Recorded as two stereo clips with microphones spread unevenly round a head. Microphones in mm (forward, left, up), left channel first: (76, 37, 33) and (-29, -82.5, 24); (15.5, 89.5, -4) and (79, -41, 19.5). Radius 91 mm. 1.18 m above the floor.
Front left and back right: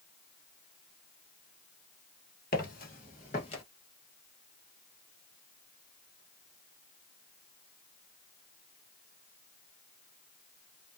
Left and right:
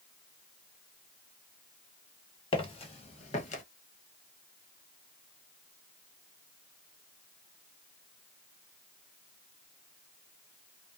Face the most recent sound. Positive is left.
turn(degrees=95)